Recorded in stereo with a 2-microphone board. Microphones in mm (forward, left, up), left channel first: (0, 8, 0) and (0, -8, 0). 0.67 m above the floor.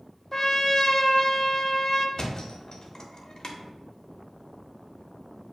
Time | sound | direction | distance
0.3 | a trumpet | 25° left (ahead or behind) | 0.5 m
2.2 | a thud | 40° left (ahead or behind) | 0.7 m